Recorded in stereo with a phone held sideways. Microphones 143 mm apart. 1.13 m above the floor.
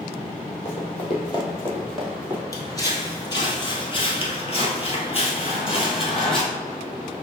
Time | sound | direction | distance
0.7 | running footsteps | 45° left (ahead or behind) | 1.8 m
2.5 | footsteps | 20° left (ahead or behind) | 1.7 m